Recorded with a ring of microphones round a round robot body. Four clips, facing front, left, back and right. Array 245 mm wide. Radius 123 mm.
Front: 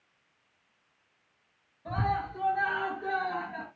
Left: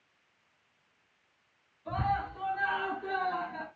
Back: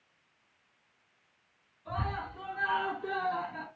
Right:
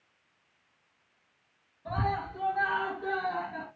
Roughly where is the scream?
Ahead right.